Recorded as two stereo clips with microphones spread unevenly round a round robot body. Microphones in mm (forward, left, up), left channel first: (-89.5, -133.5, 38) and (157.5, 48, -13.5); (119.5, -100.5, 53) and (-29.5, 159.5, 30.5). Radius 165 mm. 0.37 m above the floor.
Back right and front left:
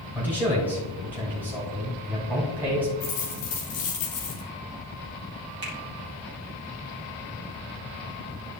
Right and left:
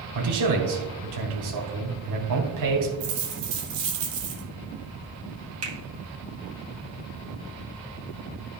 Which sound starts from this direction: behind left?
A man speaking, at 0.1 s.